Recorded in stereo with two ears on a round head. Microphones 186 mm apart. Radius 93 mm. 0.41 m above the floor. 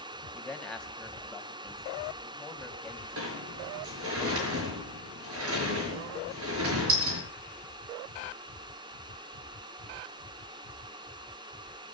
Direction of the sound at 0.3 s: 5° left (ahead or behind).